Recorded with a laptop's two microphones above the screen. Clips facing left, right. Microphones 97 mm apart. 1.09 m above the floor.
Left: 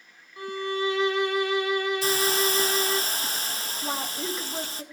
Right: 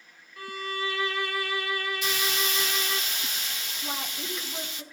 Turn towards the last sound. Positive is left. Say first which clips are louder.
# left 5 dB
turn(degrees=25)  # may be behind; listen again after turning